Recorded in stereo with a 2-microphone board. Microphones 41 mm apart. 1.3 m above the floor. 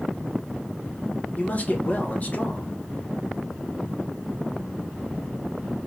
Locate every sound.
1.4 s a man speaking: 40° left (ahead or behind), 1.5 m